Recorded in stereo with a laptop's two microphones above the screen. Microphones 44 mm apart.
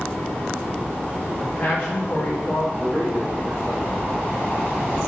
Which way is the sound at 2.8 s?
15° left (ahead or behind).